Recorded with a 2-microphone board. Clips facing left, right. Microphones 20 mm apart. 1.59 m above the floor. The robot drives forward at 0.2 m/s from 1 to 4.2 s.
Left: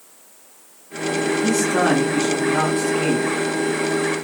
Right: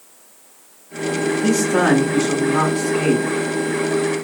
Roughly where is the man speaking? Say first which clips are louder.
Right 3 dB; right.